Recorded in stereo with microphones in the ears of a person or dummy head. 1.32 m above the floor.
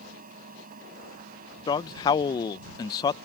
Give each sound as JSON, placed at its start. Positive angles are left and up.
{"t": 0.0, "sound": "a fan", "side_deg": -45}
{"t": 1.7, "sound": "a man speaking", "side_deg": 25}